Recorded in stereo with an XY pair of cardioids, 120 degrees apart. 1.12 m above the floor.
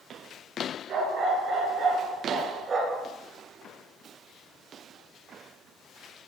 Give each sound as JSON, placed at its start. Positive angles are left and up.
{"t": 0.9, "sound": "a dog barking", "azimuth_deg": -55, "distance_m": 6.0}